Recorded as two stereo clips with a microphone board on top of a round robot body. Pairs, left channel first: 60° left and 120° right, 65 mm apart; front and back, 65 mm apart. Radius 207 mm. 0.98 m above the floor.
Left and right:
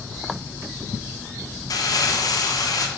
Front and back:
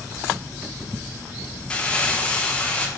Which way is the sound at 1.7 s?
75° left.